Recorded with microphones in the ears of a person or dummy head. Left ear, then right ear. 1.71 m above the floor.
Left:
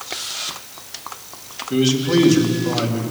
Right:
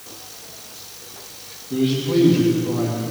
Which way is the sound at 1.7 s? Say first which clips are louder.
Left 3 dB; 70° left (ahead or behind).